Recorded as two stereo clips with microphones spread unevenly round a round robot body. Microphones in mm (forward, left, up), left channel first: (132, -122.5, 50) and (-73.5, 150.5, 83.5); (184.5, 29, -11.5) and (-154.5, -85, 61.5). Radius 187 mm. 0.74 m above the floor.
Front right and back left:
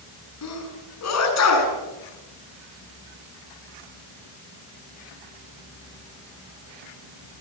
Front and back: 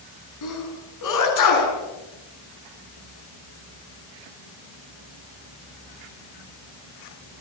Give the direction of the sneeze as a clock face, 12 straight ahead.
12 o'clock.